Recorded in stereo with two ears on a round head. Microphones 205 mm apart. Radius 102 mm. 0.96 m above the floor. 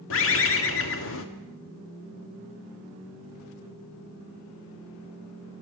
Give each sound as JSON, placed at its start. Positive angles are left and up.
{"t": 0.1, "sound": "a bird", "side_deg": 60, "distance_m": 1.5}